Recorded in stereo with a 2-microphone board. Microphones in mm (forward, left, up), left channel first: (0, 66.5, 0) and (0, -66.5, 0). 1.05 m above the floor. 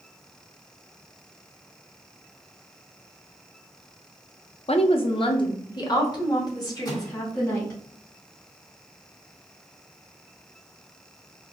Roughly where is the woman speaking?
Left.